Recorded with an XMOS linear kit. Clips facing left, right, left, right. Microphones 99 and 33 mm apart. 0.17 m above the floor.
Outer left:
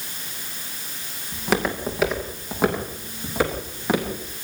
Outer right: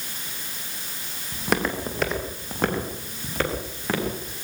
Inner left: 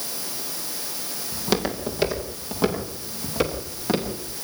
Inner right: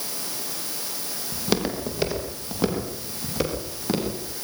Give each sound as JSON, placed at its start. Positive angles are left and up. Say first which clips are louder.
{"t": 1.3, "sound": "footsteps", "louder": "outer left 2 dB, inner left 1 dB", "side_deg": 0, "distance_m": 6.5}